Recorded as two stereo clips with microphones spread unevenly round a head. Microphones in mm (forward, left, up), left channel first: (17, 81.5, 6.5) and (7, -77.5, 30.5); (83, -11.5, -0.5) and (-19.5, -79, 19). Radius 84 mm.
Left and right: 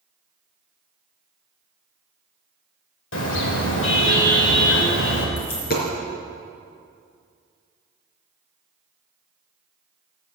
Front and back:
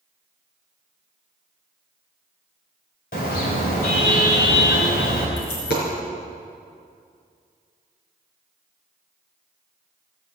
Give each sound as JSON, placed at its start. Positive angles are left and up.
{"t": 3.1, "sound": "a car horn", "azimuth_deg": 80, "distance_m": 3.0}
{"t": 5.4, "sound": "a dropped coin", "azimuth_deg": 50, "distance_m": 4.0}